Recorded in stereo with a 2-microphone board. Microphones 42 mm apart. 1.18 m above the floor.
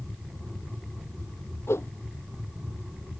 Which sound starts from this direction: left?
A whoosh, at 1.7 s.